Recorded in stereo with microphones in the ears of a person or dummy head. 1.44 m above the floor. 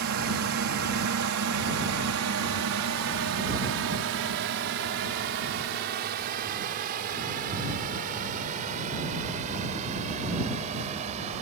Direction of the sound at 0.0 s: 70° right (ahead or behind).